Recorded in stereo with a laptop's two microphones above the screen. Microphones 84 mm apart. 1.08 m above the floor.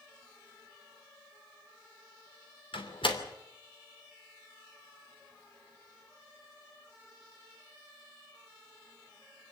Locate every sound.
2.7 s a door slam: 90° left, 2.5 m